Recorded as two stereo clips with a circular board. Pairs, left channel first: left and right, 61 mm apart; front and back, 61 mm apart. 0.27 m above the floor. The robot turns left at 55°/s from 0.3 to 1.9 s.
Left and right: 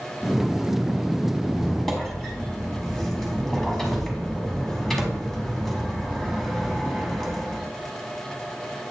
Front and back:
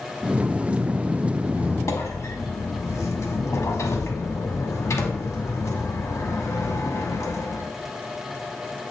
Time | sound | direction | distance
1.4 | a squeak | 30° left | 1.2 m